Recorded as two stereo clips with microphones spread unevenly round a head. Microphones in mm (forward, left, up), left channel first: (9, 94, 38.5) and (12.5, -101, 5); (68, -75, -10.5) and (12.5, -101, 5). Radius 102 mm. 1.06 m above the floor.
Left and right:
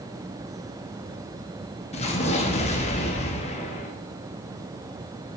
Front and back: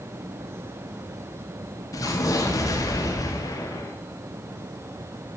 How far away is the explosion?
About 2.5 m.